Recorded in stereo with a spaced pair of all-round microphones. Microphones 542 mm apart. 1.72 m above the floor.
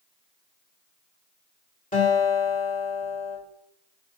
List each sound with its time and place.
1.9 s a guitar: 15° left (ahead or behind), 2.5 m